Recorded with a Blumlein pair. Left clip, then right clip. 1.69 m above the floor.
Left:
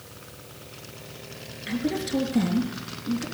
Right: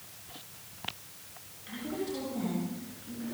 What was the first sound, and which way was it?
A woman speaking, 30° left.